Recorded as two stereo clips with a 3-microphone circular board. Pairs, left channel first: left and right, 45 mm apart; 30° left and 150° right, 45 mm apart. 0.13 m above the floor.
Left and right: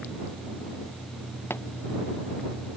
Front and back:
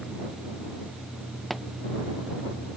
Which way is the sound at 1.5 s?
120° left.